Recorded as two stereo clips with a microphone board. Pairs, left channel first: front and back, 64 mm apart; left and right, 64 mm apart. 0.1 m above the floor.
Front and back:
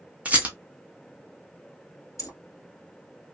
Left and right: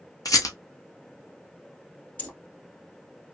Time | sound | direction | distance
0.2 | a rattle | 110° left | 0.7 m
2.2 | keys jangling | 35° left | 1.6 m